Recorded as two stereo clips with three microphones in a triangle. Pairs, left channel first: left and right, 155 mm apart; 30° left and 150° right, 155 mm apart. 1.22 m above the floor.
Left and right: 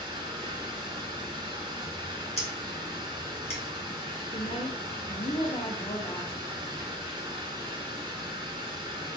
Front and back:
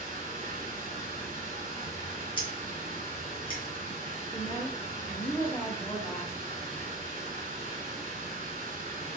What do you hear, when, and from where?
0.0 s running water: 145° right, 1.7 m
2.4 s scissors: 75° left, 0.8 m
4.3 s a woman speaking: 80° left, 0.5 m